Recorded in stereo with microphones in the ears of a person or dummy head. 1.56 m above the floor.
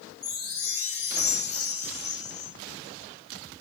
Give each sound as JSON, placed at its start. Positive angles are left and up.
{"t": 0.2, "sound": "a chime", "side_deg": -10, "distance_m": 2.5}